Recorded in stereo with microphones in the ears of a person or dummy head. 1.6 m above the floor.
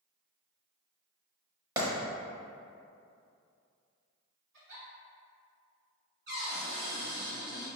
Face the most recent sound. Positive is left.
turn(degrees=-50)  # may be behind; listen again after turning